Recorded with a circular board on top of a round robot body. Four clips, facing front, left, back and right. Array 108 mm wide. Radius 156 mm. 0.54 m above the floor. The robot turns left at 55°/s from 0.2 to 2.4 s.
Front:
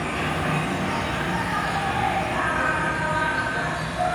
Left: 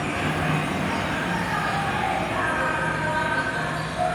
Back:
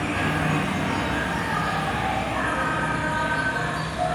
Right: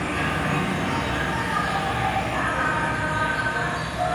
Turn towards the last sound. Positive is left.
turn(degrees=40)